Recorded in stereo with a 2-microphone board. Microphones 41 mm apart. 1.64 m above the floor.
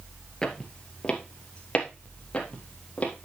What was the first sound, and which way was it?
Footsteps, 15° left (ahead or behind).